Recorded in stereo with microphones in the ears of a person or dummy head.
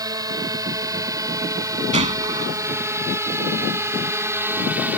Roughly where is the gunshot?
Right.